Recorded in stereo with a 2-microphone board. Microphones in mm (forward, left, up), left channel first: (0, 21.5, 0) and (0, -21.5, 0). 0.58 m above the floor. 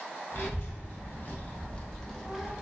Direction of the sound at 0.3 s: 65° left (ahead or behind).